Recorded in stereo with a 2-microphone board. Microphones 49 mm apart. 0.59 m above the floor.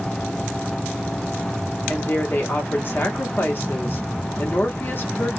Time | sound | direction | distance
1.9 | a woman speaking | 45° left (ahead or behind) | 0.9 m